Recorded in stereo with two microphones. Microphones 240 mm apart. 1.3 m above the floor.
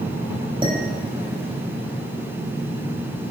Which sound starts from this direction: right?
Dishes clattering, at 0.6 s.